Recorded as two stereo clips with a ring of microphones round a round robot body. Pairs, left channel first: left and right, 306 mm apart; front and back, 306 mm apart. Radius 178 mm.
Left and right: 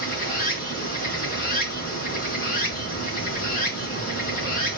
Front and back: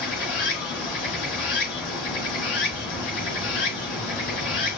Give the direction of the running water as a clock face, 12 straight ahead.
11 o'clock.